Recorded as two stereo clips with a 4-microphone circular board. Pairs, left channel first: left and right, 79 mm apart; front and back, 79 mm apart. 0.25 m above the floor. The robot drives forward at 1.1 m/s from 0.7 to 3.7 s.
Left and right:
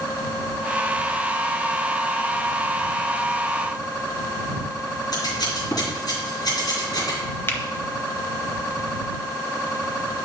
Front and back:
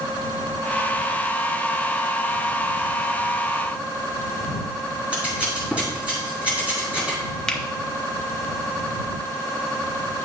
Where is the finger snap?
75° left, 0.9 m.